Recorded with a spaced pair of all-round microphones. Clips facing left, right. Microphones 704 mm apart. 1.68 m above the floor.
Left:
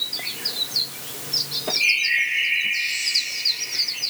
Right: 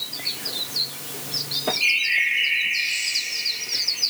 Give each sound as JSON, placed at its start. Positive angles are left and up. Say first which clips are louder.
{"t": 1.7, "sound": "a bird", "louder": "even", "side_deg": 75, "distance_m": 9.0}